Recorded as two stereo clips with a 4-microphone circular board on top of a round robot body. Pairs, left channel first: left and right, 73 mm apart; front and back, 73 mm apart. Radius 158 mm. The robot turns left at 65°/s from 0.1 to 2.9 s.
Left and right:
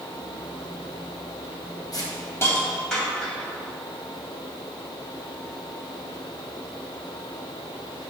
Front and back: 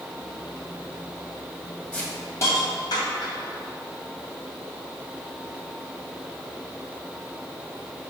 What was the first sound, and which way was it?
A hiss, 75° left.